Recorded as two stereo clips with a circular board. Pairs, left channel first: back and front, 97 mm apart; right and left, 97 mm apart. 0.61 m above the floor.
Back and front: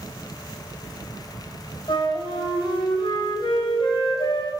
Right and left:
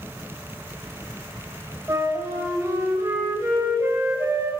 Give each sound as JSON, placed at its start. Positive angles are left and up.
{"t": 1.9, "sound": "a flute", "azimuth_deg": 145, "distance_m": 3.0}